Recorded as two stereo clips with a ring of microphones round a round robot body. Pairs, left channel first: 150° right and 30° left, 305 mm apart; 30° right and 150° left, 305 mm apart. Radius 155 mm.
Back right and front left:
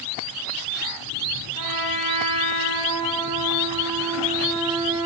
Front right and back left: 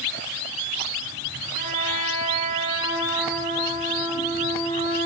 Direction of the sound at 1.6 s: 15° left.